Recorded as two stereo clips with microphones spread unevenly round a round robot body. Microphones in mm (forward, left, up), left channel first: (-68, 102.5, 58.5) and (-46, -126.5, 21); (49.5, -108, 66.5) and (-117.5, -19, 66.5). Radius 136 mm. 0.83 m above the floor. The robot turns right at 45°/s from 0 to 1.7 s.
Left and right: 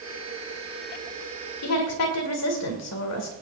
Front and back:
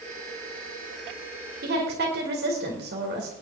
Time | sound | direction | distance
1.6 | a woman speaking | 105° left | 2.5 m